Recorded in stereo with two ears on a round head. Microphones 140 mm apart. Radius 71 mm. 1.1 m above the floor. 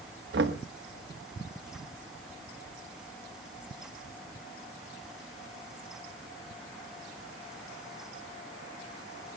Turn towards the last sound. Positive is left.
turn(degrees=-80)